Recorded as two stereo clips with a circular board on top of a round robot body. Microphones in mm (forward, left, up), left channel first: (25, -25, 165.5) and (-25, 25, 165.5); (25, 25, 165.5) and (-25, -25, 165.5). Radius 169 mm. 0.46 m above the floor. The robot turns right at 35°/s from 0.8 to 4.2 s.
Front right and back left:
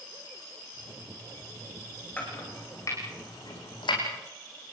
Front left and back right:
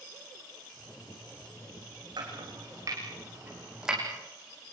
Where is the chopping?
115° right, 6.5 m; by 4.0 s 50° right, 6.5 m.